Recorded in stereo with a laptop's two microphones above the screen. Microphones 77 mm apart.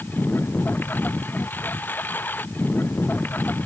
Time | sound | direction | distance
0.0 | a lawn mower | 25° left (ahead or behind) | ?